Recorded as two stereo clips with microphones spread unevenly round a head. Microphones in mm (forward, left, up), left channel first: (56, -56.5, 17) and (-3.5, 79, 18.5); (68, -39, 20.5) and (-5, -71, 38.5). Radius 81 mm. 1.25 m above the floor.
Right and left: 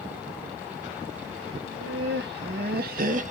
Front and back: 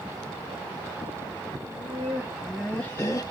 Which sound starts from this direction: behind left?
Laughter, at 1.6 s.